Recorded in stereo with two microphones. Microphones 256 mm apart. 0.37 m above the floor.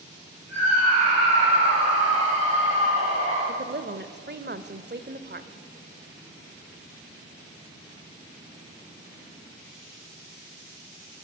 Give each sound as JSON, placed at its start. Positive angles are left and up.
{"t": 0.5, "sound": "a scream", "side_deg": -75, "distance_m": 9.5}
{"t": 3.5, "sound": "a woman speaking", "side_deg": -40, "distance_m": 1.2}